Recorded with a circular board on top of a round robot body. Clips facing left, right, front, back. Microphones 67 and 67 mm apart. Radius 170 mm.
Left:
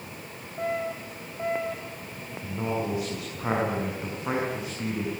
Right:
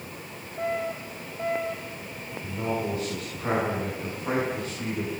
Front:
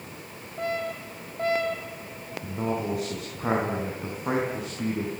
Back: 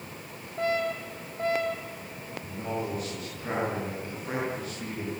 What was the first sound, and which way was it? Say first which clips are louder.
A man speaking: even, front 4 dB; 20° left.